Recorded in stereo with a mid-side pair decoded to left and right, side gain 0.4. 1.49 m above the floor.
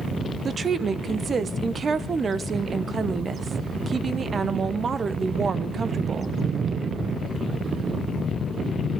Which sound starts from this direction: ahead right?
A woman speaking, at 0.5 s.